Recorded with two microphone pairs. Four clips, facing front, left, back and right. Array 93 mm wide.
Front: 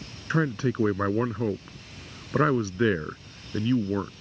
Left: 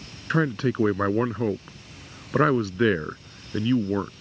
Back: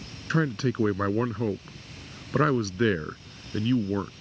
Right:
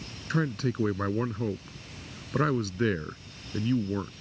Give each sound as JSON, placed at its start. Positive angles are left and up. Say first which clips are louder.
{"t": 0.3, "sound": "a man speaking", "louder": "left 5 dB, even", "azimuth_deg": 80}